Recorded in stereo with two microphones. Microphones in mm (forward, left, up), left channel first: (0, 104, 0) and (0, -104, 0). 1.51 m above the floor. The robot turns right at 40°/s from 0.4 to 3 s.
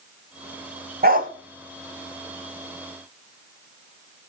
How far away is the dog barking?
About 1.8 m.